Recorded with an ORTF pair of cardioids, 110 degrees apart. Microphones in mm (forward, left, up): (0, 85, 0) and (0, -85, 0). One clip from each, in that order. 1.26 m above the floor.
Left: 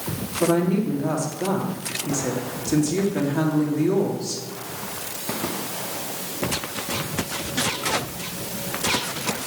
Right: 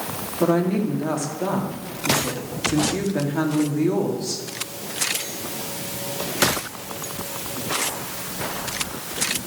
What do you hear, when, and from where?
0.4 s a woman speaking: 10° right, 2.5 m